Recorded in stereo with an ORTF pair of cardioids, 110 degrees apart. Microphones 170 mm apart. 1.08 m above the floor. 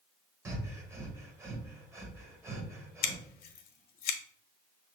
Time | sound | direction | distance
0.5 | breathing | 15° right | 0.8 m
3.0 | scissors | 65° left | 0.8 m